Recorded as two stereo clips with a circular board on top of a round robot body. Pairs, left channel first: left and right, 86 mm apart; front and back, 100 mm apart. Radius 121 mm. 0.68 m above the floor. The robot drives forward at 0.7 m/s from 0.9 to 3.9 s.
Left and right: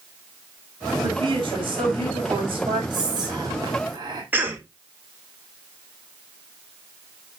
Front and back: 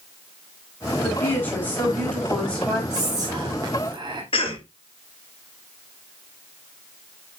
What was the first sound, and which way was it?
A woman speaking, 65° right.